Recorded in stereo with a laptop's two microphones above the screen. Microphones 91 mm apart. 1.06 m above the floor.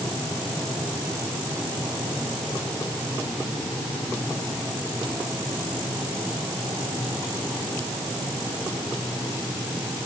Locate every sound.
Only background noise.